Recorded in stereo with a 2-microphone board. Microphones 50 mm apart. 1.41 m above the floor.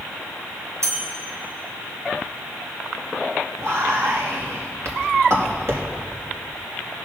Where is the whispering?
65° right (ahead or behind), 2.5 m.